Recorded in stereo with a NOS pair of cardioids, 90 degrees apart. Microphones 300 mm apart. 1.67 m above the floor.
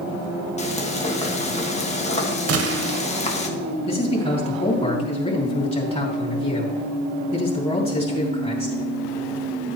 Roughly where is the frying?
Ahead left.